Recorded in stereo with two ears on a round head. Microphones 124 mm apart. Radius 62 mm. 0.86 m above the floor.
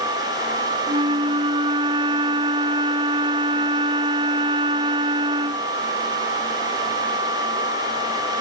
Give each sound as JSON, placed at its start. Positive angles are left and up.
{"t": 0.9, "sound": "a flute", "side_deg": -35}